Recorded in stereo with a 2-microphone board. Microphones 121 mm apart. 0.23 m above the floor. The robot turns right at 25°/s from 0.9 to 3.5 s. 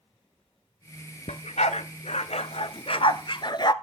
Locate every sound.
1.3 s a dog barking: 80° left, 0.8 m; by 3.7 s 45° left (ahead or behind), 0.8 m